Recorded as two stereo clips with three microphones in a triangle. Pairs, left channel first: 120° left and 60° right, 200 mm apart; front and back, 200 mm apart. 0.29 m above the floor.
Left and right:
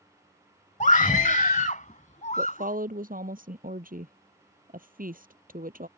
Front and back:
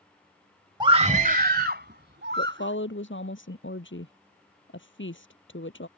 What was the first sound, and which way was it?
A scream, 130° left.